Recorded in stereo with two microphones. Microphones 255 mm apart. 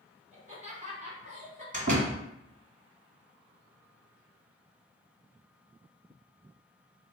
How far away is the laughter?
About 1.3 m.